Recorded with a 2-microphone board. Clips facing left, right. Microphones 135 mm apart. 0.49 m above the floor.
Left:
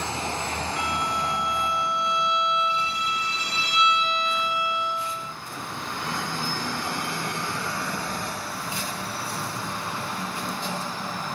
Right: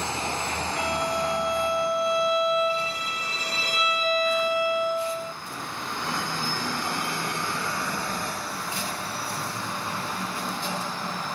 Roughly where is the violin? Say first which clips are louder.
Right 4 dB; right.